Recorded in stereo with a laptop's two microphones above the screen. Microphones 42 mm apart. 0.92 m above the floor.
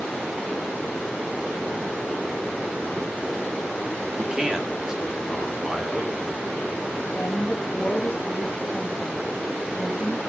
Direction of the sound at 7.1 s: 35° left (ahead or behind).